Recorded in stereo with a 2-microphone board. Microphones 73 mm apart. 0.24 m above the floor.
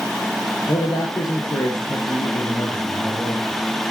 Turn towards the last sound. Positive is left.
turn(degrees=65)  # may be behind; listen again after turning